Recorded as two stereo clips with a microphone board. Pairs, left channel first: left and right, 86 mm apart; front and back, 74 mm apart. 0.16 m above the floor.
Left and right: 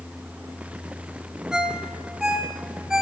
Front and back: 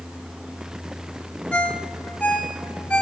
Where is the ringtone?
25° right, 0.7 m.